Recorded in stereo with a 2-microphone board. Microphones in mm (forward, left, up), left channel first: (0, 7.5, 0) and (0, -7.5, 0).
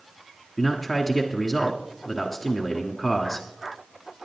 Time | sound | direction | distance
0.6 | a man speaking | 5° left (ahead or behind) | 1.2 m